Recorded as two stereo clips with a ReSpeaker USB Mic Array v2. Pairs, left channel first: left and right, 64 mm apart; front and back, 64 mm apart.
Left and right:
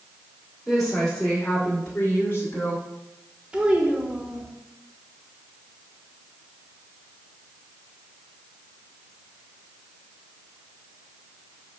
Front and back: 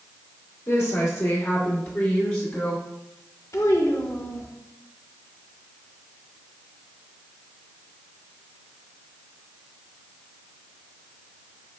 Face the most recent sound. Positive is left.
turn(degrees=-20)